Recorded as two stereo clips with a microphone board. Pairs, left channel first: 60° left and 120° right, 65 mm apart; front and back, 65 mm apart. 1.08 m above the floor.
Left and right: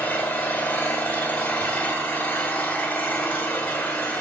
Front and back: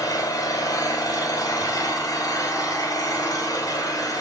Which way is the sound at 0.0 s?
10° right.